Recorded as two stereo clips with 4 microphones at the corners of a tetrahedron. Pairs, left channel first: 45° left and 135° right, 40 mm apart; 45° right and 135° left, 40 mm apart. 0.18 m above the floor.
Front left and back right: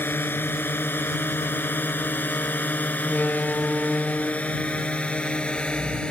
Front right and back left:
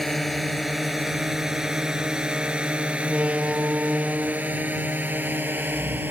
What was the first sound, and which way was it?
A drone, 45° left.